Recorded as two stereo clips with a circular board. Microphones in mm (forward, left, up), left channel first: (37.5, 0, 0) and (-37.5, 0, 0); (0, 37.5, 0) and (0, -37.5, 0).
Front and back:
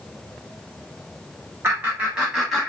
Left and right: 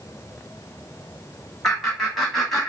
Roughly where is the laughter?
Behind.